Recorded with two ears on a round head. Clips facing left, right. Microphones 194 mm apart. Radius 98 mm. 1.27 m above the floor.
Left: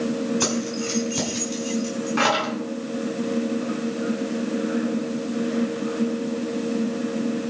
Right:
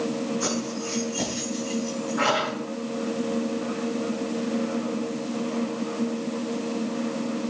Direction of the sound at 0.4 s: 85° left.